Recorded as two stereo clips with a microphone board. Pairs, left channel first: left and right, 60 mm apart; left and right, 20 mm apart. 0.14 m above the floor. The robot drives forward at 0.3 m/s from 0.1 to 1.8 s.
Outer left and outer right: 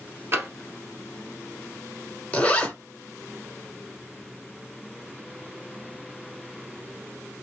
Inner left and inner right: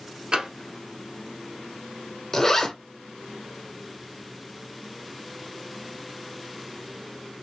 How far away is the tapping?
About 1.9 m.